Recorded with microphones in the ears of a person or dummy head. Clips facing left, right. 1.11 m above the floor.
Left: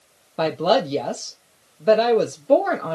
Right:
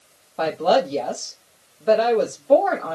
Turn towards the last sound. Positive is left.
turn(degrees=40)  # may be behind; listen again after turning